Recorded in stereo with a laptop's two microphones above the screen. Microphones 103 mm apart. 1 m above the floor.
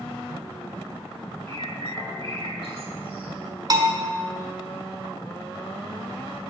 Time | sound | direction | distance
1.5 | a bird | 70° right (ahead or behind) | 1.7 m
3.7 | a bell | 40° right (ahead or behind) | 0.9 m